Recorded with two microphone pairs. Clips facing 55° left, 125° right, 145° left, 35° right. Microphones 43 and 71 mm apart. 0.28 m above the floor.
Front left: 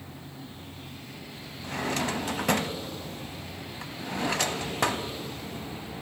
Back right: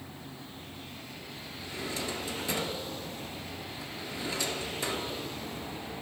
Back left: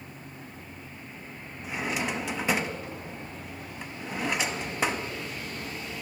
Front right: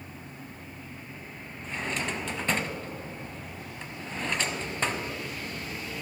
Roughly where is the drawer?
Ahead left.